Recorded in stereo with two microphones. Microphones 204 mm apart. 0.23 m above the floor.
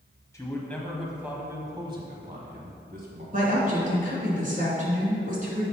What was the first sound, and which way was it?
A man speaking, 15° left (ahead or behind).